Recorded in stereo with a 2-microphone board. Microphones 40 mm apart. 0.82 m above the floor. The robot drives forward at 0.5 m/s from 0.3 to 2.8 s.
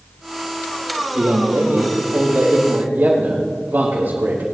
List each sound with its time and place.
1.1 s a man speaking: 70° right (ahead or behind), 4.5 m; by 4.4 s 60° right (ahead or behind), 4.5 m